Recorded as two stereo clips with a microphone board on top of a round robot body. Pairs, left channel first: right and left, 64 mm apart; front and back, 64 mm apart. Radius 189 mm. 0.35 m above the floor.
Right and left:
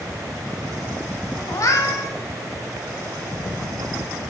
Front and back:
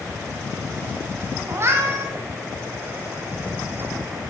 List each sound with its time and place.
1.5 s a cat meowing: 130° right, 1.1 m